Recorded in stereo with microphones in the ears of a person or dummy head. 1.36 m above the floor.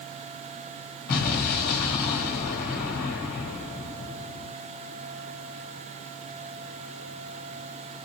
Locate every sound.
1.1 s an explosion: 55° left (ahead or behind), 1.9 m